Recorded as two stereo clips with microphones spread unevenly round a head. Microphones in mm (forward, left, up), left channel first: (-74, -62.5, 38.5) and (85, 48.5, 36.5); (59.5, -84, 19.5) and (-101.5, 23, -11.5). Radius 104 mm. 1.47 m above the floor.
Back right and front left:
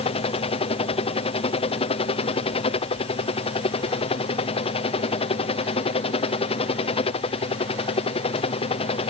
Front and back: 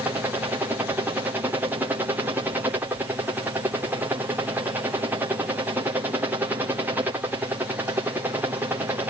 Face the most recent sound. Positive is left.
turn(degrees=-160)